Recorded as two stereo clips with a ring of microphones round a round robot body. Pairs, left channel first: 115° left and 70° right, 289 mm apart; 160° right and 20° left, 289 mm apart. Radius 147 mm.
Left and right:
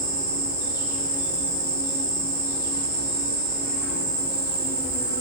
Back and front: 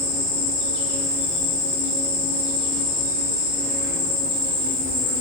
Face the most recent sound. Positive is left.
turn(degrees=-175)